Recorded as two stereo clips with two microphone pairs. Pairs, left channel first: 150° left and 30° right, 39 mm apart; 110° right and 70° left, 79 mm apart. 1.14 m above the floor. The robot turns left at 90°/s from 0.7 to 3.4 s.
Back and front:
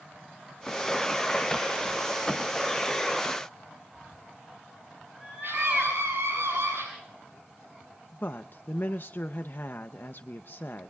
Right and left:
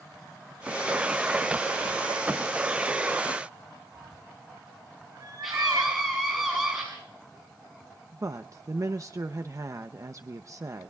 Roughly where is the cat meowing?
Ahead left.